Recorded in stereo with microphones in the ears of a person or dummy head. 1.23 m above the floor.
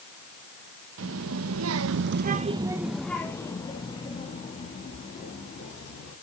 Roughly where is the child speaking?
Right.